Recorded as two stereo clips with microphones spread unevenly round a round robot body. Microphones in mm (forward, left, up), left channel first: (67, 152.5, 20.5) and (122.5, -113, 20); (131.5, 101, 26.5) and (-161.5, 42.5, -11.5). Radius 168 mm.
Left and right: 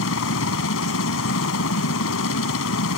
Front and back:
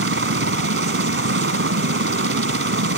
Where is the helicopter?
145° left.